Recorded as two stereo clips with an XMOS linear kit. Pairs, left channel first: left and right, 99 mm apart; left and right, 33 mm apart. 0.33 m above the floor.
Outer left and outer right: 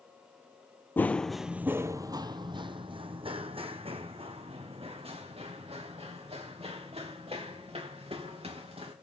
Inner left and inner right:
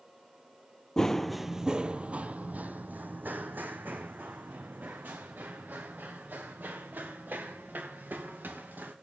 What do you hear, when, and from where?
1.0 s running footsteps: 20° left (ahead or behind), 0.6 m; by 8.9 s 85° right, 4 m